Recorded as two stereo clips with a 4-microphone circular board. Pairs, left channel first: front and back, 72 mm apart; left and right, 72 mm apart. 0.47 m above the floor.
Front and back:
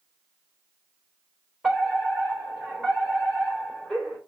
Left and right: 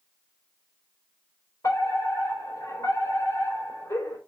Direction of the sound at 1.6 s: 80° left.